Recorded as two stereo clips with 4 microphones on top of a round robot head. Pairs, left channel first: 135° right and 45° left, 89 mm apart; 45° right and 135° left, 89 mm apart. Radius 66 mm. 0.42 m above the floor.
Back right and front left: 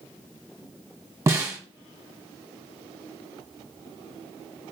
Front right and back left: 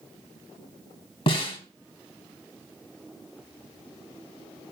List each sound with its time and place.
1.3 s a snare drum: 15° right, 1.9 m